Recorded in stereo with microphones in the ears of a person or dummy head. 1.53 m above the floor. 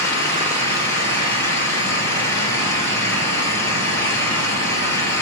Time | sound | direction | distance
0.0 | an engine running | 15° left (ahead or behind) | 5 m